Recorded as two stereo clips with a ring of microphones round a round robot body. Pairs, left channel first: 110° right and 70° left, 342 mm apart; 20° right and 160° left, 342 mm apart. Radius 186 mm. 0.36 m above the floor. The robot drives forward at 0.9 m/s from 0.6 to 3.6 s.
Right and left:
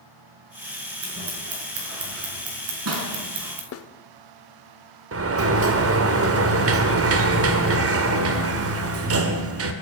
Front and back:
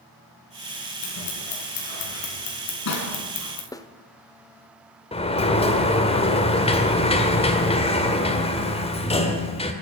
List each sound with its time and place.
1.0 s scissors: 15° left, 5.5 m; by 3.6 s 25° left, 3.5 m
3.7 s a snare drum: 95° right, 0.9 m
5.1 s a sliding door: 45° left, 1.6 m